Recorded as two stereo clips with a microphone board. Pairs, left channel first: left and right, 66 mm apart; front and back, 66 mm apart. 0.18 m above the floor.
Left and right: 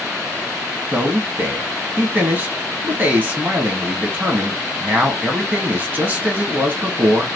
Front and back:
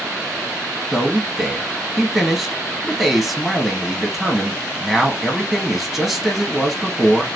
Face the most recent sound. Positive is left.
turn(degrees=-100)